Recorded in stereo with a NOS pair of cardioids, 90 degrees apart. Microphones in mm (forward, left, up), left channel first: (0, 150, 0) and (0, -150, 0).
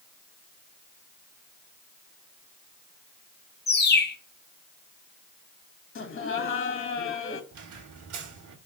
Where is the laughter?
40° left, 2 m.